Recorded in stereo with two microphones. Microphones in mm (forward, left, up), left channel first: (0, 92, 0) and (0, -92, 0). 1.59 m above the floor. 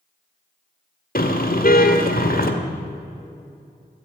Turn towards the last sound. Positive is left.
turn(degrees=50)  # may be behind; listen again after turning